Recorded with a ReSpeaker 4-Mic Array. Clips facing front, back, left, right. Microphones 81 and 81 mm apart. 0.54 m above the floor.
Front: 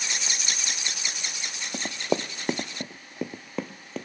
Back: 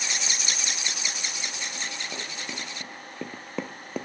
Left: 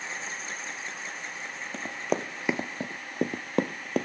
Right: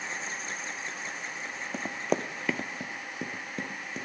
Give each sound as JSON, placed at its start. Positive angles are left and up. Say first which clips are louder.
{"t": 1.7, "sound": "running footsteps", "louder": "front 8 dB, even", "azimuth_deg": -10, "distance_m": 1.1}